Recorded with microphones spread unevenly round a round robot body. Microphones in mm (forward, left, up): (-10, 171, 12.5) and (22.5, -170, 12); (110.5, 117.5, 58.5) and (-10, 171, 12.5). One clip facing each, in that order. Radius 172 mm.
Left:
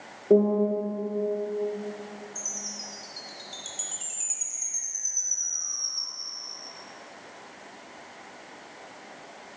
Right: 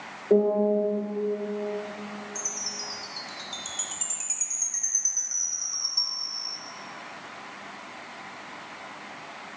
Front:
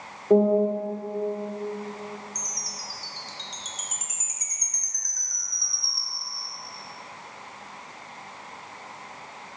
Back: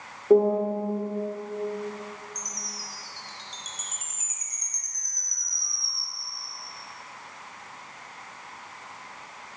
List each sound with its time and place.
0.3 s a piano: 110° left, 1.4 m
2.4 s a chime: 10° right, 0.8 m